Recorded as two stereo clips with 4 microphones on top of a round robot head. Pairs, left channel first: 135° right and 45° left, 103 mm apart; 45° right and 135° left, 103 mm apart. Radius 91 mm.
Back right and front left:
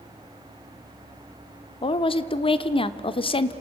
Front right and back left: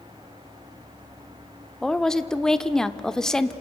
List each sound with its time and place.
1.8 s a woman speaking: 130° right, 1.1 m